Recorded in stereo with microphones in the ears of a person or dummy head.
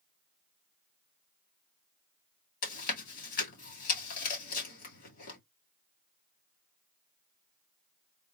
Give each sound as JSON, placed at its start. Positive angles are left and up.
{"t": 2.6, "sound": "chewing", "side_deg": 50, "distance_m": 2.5}